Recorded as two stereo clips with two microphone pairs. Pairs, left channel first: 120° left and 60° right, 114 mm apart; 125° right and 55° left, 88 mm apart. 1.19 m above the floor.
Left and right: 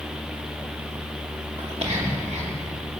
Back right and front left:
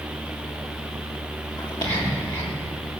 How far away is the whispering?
About 2.5 m.